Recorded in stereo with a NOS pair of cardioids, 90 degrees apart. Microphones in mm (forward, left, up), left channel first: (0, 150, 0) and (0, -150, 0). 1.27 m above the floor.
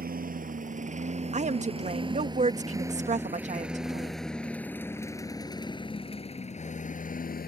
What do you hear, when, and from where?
0.0 s a lawn mower: 30° right; by 7.5 s 30° left
1.3 s a woman speaking: 25° right